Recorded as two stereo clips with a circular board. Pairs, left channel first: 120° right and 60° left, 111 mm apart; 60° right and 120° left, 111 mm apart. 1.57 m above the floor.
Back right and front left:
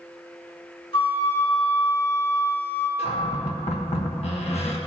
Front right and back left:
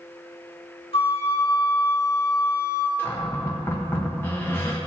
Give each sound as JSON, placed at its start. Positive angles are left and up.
{"t": 0.9, "sound": "a flute", "azimuth_deg": -85, "distance_m": 2.0}
{"t": 3.0, "sound": "a cupboard door", "azimuth_deg": -130, "distance_m": 1.3}